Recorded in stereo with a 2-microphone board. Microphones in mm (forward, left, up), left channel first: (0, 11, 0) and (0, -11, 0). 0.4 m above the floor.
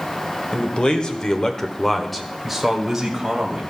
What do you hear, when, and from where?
0.5 s a man speaking: 45° left (ahead or behind), 1.3 m; by 3.6 s 15° right (ahead or behind), 1.8 m